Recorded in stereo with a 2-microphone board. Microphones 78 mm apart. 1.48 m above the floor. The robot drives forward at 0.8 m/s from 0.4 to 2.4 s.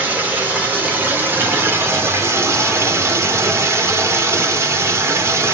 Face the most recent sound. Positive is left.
turn(degrees=-35)  # may be behind; listen again after turning